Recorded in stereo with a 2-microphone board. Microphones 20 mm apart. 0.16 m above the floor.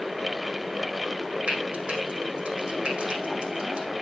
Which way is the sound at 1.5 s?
70° right (ahead or behind).